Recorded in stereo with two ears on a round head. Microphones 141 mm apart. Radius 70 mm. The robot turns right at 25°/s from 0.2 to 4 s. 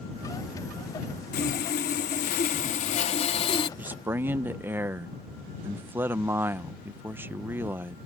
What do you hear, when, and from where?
1.3 s sawing: 85° left; by 3.7 s 145° left
3.8 s a man speaking: 10° right (ahead or behind); by 8.0 s 15° right (ahead or behind)